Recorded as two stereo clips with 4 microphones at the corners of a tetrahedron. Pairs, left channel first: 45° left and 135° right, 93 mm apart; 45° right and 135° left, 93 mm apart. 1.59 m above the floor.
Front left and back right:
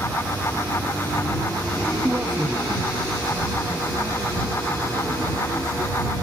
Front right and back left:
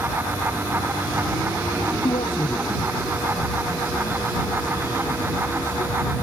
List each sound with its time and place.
2.0 s a man speaking: 60° right; by 6.1 s 75° right